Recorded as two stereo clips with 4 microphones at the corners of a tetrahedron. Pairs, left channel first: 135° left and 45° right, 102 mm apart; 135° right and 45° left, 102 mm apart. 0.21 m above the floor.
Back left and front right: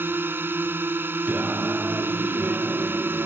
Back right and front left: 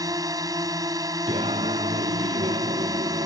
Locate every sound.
0.0 s a drone: 15° left
1.3 s singing: 30° left